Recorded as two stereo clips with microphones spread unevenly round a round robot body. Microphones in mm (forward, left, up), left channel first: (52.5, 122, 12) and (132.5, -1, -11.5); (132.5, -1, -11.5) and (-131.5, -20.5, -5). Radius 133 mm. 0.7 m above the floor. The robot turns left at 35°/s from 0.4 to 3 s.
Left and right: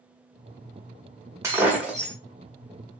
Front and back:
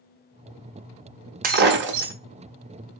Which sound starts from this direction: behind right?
Breaking glass, at 1.4 s.